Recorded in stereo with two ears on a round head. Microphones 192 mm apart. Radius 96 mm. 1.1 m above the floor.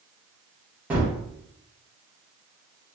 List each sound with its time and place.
0.9 s a gunshot: 5° right (ahead or behind), 0.8 m